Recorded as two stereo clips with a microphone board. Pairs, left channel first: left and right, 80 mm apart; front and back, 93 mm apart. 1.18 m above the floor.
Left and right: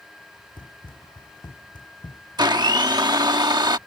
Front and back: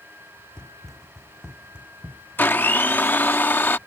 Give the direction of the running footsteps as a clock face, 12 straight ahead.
9 o'clock.